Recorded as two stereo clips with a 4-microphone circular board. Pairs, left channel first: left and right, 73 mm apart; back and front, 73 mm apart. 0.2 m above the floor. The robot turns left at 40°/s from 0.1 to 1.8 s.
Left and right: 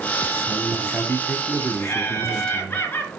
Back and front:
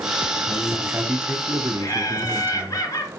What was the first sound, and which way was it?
A man speaking, 75° left.